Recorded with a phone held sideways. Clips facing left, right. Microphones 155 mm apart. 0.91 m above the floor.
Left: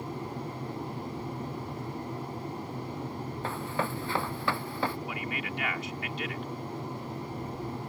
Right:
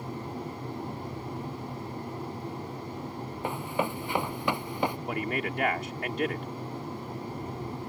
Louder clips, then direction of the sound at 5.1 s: Right 5 dB; 50° right (ahead or behind).